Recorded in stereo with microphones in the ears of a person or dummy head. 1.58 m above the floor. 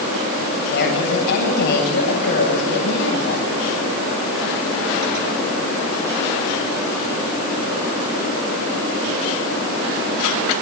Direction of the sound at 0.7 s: 65° left (ahead or behind).